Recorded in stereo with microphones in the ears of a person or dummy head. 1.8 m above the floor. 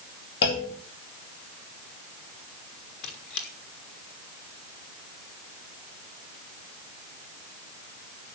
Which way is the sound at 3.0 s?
55° left (ahead or behind).